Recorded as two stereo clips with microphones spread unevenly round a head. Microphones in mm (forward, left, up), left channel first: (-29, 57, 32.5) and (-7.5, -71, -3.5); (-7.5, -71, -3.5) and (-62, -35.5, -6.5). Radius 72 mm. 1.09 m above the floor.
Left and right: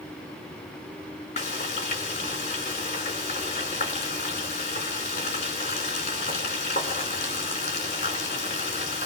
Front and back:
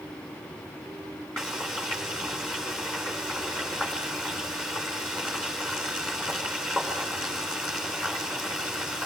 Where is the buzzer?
I don't hear a buzzer.